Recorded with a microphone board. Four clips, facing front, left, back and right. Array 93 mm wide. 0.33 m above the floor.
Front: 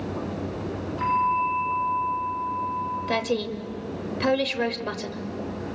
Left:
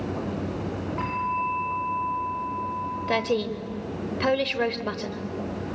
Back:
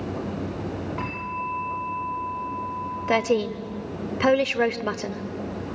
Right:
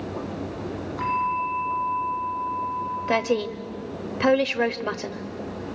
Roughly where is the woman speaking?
Behind right.